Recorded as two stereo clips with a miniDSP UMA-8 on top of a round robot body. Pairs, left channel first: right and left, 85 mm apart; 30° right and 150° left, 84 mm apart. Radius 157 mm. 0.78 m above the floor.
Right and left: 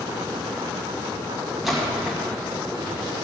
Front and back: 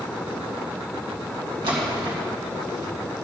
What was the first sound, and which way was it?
A splash, straight behind.